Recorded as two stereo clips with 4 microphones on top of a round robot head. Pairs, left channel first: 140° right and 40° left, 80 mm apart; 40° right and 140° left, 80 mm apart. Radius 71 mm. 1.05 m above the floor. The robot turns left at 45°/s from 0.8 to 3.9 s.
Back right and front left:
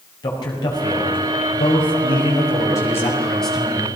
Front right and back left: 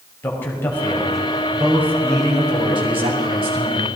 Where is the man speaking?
105° right, 5 m; by 3.9 s 115° left, 5 m.